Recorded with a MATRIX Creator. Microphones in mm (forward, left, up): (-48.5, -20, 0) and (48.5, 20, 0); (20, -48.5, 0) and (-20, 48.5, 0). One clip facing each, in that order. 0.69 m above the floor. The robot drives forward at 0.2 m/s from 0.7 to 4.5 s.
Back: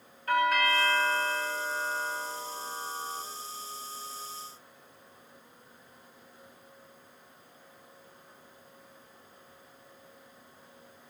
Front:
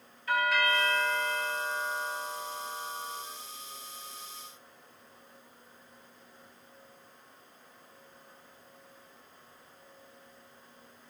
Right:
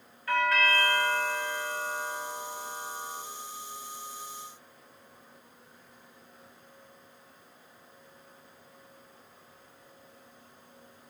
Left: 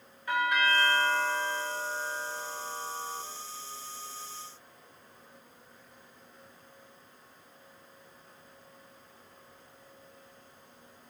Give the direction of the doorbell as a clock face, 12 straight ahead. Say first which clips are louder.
Back 2 dB, right 1 dB; 6 o'clock.